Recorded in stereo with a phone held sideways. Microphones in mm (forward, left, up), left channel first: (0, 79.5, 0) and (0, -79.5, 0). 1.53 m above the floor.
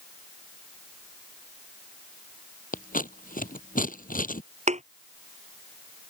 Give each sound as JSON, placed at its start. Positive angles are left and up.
{"t": 2.7, "sound": "scissors", "side_deg": 60}
{"t": 4.7, "sound": "a thud", "side_deg": -45}